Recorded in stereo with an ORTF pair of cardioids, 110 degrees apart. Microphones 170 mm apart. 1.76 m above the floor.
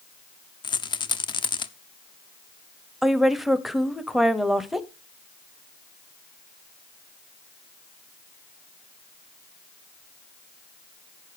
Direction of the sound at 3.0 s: Straight ahead.